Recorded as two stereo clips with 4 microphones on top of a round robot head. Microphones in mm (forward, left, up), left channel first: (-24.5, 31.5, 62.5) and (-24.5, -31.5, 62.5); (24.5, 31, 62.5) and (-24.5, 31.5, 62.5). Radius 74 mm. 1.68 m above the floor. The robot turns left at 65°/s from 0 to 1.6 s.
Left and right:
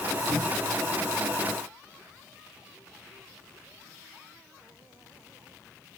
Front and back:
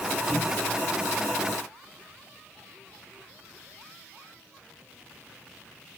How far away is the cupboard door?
About 1.9 m.